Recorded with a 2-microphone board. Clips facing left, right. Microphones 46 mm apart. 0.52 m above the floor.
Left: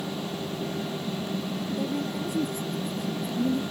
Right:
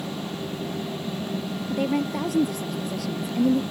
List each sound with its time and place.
1.7 s a woman speaking: 75° right (ahead or behind); by 3.6 s 85° right